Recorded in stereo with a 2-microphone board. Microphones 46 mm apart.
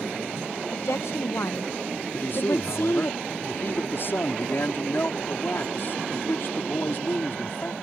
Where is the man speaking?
50° left (ahead or behind).